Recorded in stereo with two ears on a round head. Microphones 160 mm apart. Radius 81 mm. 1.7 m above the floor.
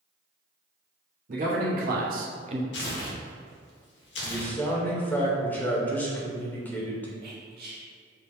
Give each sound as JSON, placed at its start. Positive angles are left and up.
{"t": 1.3, "sound": "a man speaking", "side_deg": -50, "distance_m": 1.1}
{"t": 2.7, "sound": "tearing paper", "side_deg": 70, "distance_m": 1.0}
{"t": 4.2, "sound": "a man speaking", "side_deg": 10, "distance_m": 0.9}
{"t": 7.2, "sound": "whispering", "side_deg": -60, "distance_m": 1.1}